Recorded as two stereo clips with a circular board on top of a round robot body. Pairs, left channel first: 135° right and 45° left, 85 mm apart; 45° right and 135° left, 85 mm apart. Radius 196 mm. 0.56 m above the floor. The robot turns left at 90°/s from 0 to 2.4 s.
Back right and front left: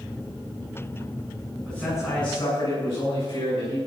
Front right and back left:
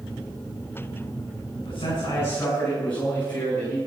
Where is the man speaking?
50° right, 7.5 m; by 3.8 s 120° right, 7.5 m.